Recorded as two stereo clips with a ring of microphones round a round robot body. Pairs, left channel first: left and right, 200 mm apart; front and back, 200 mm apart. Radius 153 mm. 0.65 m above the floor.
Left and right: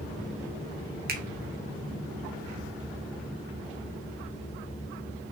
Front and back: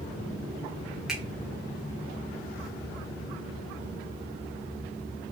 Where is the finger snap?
95° right, 0.8 m.